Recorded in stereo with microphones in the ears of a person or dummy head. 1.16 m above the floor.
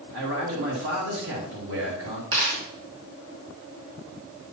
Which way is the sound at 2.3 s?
55° right (ahead or behind).